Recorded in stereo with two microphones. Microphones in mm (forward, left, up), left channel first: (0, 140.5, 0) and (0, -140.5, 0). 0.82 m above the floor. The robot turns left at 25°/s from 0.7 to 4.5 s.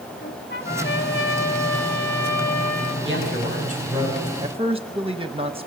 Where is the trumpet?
145° left, 1.6 m; by 3.0 s 85° left, 1.6 m.